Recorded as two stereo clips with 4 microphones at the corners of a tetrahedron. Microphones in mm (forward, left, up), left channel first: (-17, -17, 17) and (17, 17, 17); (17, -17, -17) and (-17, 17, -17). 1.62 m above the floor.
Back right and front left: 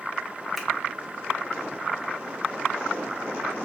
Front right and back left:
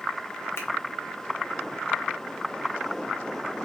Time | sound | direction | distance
0.6 | a finger snap | 50° right | 0.7 m